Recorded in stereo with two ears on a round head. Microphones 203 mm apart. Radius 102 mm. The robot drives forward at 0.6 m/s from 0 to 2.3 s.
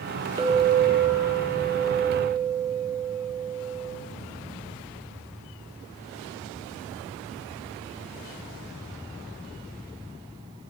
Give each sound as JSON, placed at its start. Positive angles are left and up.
{"t": 0.4, "sound": "a clink", "side_deg": -15, "distance_m": 0.5}